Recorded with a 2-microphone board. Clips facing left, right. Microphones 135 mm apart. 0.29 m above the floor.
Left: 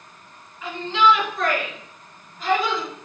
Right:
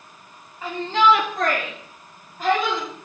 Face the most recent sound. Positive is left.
turn(degrees=-50)  # may be behind; listen again after turning